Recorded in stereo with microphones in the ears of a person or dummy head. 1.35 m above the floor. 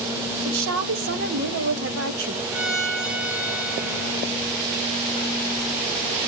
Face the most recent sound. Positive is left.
turn(degrees=-60)  # may be behind; listen again after turning